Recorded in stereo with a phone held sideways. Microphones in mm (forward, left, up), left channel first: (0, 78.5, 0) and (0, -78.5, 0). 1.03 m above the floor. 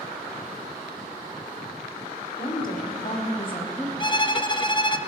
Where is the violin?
30° left (ahead or behind), 0.6 m.